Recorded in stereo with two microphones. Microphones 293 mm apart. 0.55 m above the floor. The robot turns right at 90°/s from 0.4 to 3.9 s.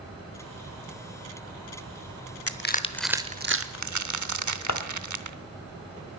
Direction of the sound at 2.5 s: 50° left (ahead or behind).